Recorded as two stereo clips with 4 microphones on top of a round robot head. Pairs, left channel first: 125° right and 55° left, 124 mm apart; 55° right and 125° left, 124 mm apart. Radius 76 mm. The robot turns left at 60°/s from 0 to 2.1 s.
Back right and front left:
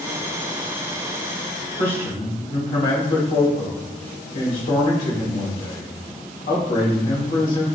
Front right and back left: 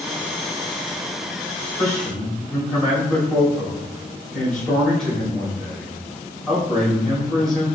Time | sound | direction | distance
1.8 | a man speaking | 120° right | 1.7 m